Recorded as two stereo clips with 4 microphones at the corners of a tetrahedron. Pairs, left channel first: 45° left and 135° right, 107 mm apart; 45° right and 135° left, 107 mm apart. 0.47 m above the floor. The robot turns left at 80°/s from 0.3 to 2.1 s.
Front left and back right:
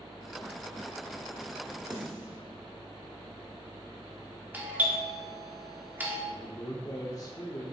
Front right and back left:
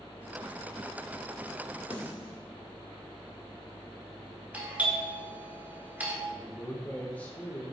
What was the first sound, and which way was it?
A snare drum, 85° right.